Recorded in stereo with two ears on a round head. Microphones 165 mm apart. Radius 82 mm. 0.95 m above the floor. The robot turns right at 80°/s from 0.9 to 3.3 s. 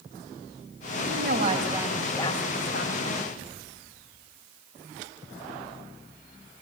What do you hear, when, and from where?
1.0 s a woman speaking: 80° right, 4.5 m; by 3.2 s 100° left, 4.5 m